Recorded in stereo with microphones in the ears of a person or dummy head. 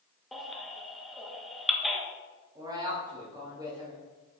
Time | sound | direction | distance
0.3 | a baby crying | centre (ahead or behind) | 1.2 m
2.5 | a woman speaking | 20° right (ahead or behind) | 2.5 m